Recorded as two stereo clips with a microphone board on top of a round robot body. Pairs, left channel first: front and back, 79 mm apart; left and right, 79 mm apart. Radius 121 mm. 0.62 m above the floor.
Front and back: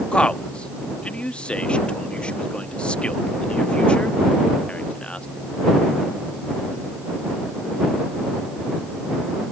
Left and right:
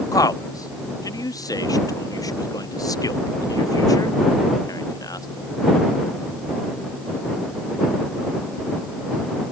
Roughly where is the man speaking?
Left.